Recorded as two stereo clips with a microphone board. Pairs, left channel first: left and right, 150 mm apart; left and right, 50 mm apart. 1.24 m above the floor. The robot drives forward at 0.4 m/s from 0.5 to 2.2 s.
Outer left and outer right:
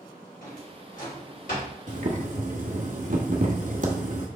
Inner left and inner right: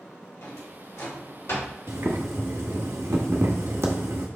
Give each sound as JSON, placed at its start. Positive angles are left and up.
{"t": 0.4, "sound": "a drawer", "side_deg": 75, "distance_m": 2.0}
{"t": 1.9, "sound": "boiling", "side_deg": -60, "distance_m": 1.1}